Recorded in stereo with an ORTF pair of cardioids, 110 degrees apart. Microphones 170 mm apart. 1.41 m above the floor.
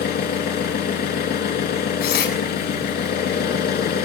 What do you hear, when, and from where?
0.0 s an engine running: 65° left, 5 m
2.0 s tearing paper: 65° left, 8 m